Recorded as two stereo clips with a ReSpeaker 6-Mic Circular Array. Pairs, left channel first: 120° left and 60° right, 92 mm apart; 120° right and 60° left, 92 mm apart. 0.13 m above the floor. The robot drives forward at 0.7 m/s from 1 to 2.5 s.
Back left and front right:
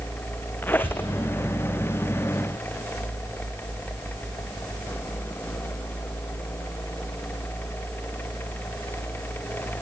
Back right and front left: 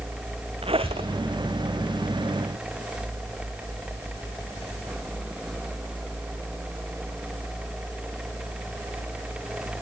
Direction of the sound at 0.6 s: 50° left.